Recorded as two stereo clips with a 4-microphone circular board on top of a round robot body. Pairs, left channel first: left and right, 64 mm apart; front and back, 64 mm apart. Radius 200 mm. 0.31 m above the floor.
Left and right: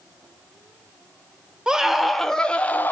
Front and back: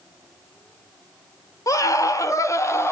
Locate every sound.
1.7 s a scream: 10° right, 1.5 m; by 2.9 s 35° left, 1.4 m